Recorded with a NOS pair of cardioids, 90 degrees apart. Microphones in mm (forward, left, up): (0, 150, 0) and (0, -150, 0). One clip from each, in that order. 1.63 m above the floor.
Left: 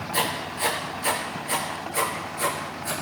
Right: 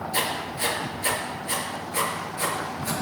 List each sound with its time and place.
0.1 s writing: 15° right, 4 m